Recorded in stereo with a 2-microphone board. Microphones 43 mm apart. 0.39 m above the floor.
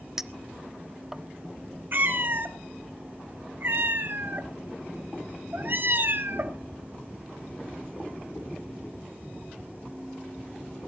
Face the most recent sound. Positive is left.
turn(degrees=-55)  # may be behind; listen again after turning